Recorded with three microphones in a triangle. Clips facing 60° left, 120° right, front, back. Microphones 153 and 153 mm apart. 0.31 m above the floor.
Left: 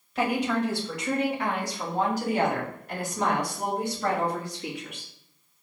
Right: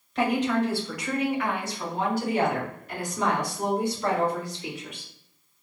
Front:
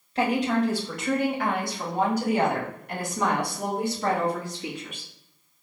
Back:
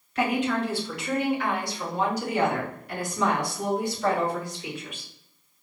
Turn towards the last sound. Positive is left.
turn(degrees=30)